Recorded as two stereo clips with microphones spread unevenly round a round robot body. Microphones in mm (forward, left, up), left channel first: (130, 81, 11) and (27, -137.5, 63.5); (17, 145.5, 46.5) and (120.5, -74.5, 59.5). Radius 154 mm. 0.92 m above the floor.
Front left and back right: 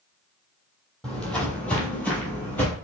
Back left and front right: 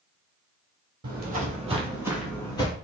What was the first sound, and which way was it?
Footsteps, 30° right.